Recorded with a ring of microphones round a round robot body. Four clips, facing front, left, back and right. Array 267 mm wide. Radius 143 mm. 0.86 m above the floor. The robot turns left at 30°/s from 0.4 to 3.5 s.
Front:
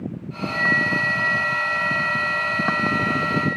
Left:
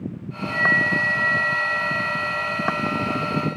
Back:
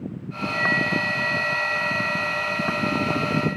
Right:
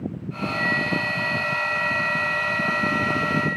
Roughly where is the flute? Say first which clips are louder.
Left 4 dB, front 1 dB; left.